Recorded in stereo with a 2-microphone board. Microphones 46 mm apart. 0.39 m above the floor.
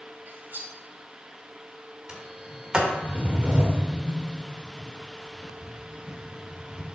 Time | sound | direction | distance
0.3 | cutlery clinking | 45° right (ahead or behind) | 1.1 m
2.1 | a sliding door | 20° right (ahead or behind) | 1.2 m